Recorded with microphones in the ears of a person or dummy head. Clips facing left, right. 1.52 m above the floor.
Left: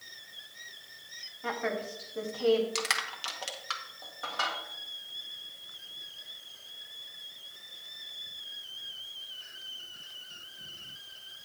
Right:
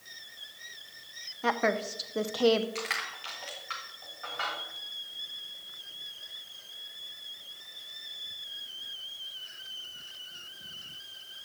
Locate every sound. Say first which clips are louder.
1.4 s a woman speaking: right 5 dB; 70° right (ahead or behind), 0.7 m
2.8 s crushing: left 1 dB; 65° left (ahead or behind), 1.2 m